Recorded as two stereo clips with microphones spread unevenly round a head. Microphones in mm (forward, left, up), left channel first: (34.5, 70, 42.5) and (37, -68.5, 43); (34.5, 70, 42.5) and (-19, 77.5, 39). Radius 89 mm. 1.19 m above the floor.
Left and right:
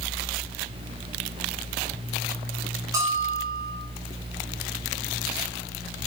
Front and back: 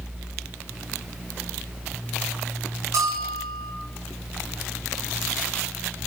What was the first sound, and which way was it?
A bell, 160° right.